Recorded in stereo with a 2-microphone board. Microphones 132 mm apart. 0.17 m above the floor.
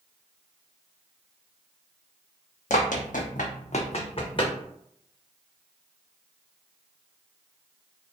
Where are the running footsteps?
65° left (ahead or behind), 0.6 m; by 4.5 s 35° left (ahead or behind), 0.9 m.